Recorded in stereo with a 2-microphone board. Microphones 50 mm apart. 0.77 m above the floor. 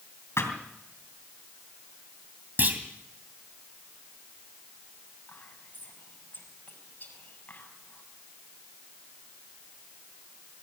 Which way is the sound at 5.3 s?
40° left (ahead or behind).